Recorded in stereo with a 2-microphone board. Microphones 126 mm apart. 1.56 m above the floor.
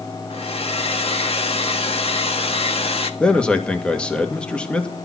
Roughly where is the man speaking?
Centre.